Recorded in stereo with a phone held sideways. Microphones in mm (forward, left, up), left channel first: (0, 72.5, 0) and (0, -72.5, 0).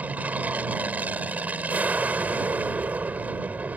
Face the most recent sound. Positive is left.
turn(degrees=-10)  # may be behind; listen again after turning